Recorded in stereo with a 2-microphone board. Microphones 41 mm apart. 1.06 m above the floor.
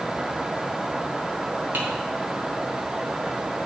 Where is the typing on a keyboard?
45° right (ahead or behind), 2.0 m.